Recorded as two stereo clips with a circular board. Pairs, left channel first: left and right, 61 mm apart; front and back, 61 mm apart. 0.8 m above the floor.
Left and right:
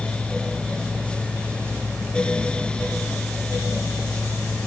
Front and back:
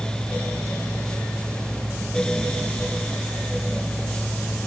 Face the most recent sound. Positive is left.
No sound to turn to.